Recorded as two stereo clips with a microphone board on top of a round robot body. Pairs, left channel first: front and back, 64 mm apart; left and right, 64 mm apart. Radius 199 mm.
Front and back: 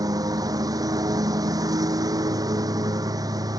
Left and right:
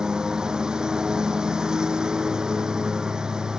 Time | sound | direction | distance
0.0 | a lawn mower | 165° right | ?